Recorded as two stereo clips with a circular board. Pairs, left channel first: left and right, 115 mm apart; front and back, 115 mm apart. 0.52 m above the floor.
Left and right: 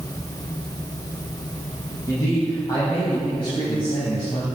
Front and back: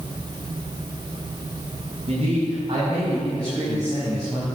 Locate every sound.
2.1 s a man speaking: 150° left, 4.5 m; by 4.5 s 115° left, 4 m